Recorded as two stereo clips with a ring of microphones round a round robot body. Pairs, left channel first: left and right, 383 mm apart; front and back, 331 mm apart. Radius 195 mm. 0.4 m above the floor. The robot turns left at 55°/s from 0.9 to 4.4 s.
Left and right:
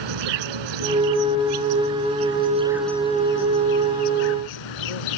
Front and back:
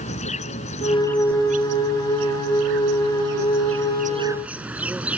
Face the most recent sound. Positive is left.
turn(degrees=95)